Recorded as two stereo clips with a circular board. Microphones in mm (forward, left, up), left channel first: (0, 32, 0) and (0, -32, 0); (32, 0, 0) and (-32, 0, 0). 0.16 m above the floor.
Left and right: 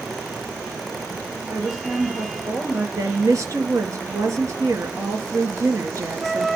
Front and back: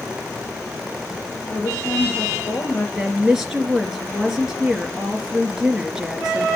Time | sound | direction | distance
1.5 | a woman speaking | 25° right | 2.5 m
3.0 | a woman speaking | 100° right | 2.5 m